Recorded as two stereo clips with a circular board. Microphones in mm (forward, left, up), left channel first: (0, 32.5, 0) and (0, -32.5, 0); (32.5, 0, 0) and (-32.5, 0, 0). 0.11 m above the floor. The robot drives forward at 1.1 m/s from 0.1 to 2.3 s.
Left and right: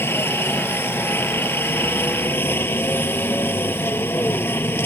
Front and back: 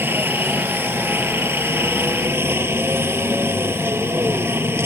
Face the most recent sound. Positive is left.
turn(degrees=135)